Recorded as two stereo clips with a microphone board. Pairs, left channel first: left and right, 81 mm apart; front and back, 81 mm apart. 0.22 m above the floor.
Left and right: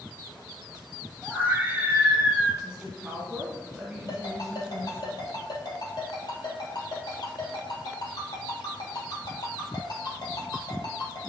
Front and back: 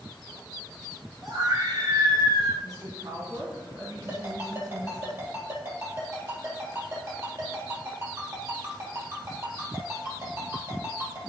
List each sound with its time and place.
1.2 s a scream: 160° right, 3.5 m; by 2.5 s 170° right, 3 m
2.6 s a woman speaking: 165° right, 1.6 m
4.1 s a ringtone: 125° left, 3.5 m